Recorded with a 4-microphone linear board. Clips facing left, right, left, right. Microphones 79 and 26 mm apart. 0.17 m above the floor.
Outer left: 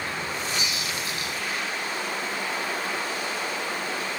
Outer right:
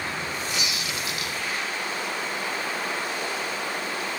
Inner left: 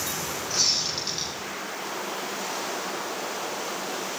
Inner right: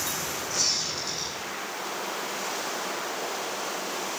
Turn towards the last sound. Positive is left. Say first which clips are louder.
# even, inner left 3 dB
turn(degrees=35)  # may be behind; listen again after turning